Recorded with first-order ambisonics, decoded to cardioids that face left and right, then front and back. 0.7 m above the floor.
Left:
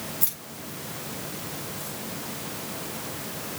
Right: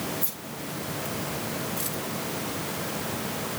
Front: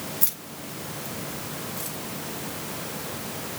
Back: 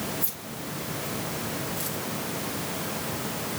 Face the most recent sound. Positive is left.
turn(degrees=-80)